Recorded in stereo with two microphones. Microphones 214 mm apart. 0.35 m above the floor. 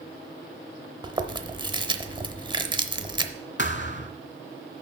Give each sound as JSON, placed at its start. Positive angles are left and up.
{"t": 1.0, "sound": "chewing", "side_deg": -20, "distance_m": 0.7}
{"t": 3.6, "sound": "a thud", "side_deg": 55, "distance_m": 0.9}